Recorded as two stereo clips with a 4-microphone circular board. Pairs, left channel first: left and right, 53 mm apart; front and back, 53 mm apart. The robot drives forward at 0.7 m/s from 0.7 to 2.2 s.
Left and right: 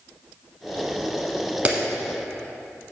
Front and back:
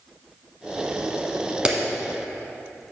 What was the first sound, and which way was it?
A clap, 125° right.